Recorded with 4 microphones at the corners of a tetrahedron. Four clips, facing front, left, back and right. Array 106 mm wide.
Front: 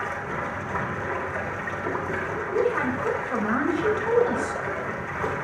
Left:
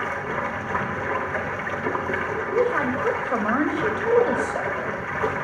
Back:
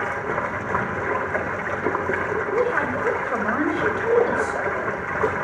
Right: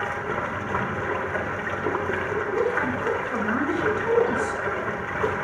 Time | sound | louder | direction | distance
0.0 | running water | left 1 dB, back 5 dB | 175° right | 1.0 m
2.5 | a woman speaking | left 4 dB, even | 140° left | 2 m